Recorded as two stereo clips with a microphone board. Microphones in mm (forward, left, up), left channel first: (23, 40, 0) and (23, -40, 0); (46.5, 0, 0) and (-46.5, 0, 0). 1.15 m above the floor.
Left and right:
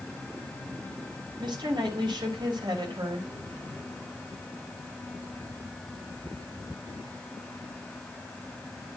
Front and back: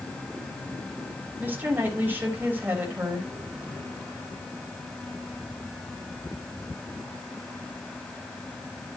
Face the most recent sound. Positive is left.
turn(degrees=-110)